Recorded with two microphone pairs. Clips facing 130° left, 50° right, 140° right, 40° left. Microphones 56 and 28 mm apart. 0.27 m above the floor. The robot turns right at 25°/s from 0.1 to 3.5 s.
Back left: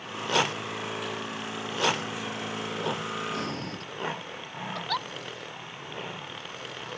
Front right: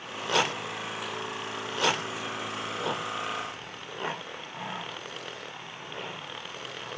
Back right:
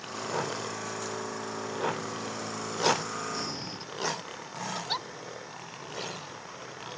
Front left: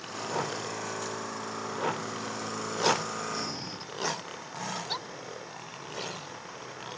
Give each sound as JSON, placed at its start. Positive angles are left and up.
{"t": 3.3, "sound": "breathing", "azimuth_deg": 135}
{"t": 4.8, "sound": "a giggle", "azimuth_deg": 150}